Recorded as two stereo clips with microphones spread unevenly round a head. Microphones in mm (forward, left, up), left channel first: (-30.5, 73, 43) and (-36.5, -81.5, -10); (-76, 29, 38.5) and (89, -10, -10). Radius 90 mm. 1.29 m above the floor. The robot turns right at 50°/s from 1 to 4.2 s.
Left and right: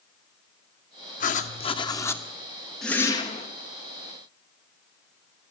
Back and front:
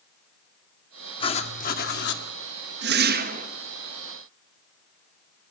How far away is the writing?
About 1.8 m.